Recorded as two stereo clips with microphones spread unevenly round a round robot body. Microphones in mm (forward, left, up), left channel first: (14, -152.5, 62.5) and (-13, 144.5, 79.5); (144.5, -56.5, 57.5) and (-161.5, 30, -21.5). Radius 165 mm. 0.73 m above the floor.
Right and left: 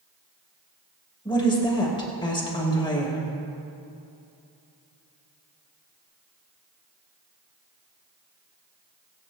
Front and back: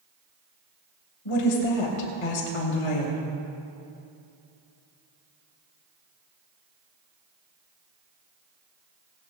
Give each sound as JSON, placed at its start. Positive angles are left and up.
{"t": 1.2, "sound": "a woman speaking", "azimuth_deg": -10, "distance_m": 4.0}